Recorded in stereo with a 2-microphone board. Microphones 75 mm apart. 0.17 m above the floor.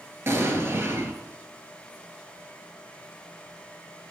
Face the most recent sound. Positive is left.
turn(degrees=-40)  # may be behind; listen again after turning